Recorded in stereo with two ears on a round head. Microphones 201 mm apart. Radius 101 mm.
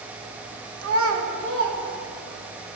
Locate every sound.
0.8 s a child speaking: 65° right (ahead or behind), 1.1 m; by 2.5 s 45° right (ahead or behind), 1.9 m